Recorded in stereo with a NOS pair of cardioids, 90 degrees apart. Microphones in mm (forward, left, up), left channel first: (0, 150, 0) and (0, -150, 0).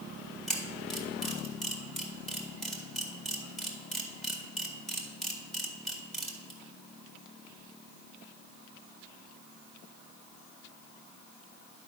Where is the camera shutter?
Straight ahead, 1.9 m.